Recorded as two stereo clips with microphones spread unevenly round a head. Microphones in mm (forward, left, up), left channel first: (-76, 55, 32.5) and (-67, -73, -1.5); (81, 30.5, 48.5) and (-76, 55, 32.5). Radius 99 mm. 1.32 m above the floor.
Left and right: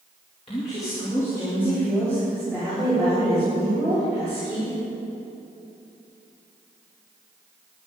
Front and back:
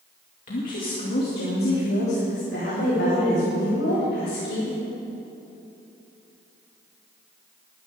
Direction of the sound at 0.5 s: 30° left.